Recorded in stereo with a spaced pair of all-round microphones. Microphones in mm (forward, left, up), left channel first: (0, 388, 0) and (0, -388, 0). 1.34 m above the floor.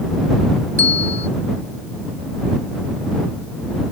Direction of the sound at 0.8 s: 30° right (ahead or behind).